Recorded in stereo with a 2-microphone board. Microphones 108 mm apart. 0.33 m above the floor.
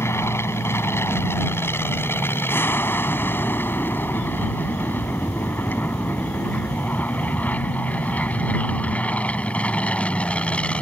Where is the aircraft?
25° left (ahead or behind); by 10.8 s 10° left (ahead or behind).